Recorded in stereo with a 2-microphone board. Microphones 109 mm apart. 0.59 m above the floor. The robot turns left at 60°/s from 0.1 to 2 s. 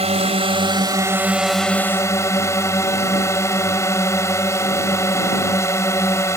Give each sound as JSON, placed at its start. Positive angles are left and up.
{"t": 0.0, "sound": "a drone", "azimuth_deg": -95}